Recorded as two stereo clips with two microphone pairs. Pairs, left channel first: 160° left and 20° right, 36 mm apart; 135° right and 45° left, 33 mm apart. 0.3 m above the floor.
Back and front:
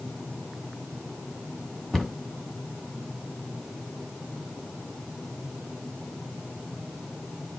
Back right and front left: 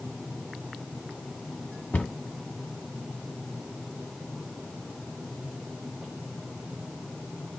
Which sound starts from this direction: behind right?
A cupboard door, at 1.9 s.